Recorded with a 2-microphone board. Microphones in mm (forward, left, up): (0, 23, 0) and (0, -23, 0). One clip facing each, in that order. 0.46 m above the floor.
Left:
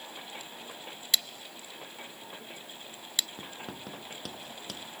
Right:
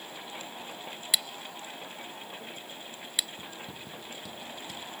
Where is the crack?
No crack in this recording.